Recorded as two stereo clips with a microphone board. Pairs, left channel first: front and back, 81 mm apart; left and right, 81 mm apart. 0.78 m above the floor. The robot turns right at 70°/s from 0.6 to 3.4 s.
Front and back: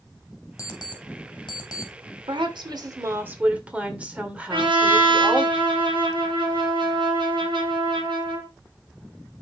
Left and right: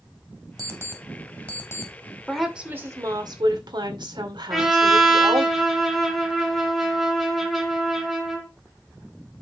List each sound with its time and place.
0.6 s an alarm clock: 45° right, 1.8 m; by 1.9 s 50° left, 1.8 m
2.3 s a woman speaking: 175° left, 2.5 m; by 5.5 s 110° right, 2.5 m
4.5 s a trumpet: straight behind, 3.5 m